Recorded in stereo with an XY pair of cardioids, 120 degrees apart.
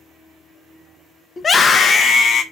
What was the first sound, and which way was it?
A scream, 35° left.